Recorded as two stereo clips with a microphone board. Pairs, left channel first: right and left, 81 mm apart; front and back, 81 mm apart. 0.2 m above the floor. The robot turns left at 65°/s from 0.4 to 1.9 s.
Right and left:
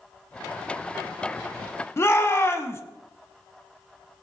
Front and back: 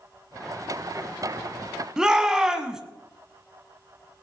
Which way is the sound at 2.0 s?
105° right.